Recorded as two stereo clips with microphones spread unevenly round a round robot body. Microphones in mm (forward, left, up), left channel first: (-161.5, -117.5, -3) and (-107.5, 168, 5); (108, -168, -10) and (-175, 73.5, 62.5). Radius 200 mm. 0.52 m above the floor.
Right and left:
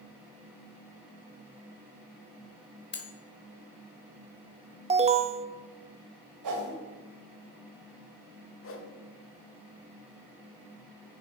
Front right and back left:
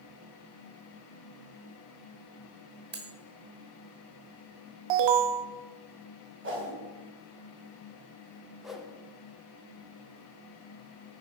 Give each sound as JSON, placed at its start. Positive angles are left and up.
{"t": 2.9, "sound": "cutlery clinking", "azimuth_deg": -155, "distance_m": 1.7}
{"t": 4.9, "sound": "an alarm", "azimuth_deg": 150, "distance_m": 0.8}
{"t": 6.4, "sound": "a whoosh", "azimuth_deg": 75, "distance_m": 2.5}
{"t": 8.6, "sound": "a whoosh", "azimuth_deg": -120, "distance_m": 1.3}